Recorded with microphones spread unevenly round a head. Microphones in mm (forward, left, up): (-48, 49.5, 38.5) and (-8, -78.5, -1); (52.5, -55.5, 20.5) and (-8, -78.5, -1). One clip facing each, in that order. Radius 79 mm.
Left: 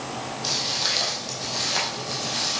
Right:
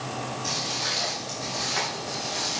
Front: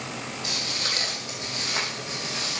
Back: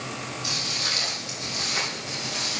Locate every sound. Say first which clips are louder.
0.4 s footsteps: left 1 dB, front 1 dB; 65° left, 4 m; by 2.6 s 90° left, 3.5 m